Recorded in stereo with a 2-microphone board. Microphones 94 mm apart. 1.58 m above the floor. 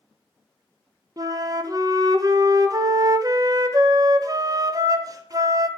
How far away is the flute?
About 0.7 m.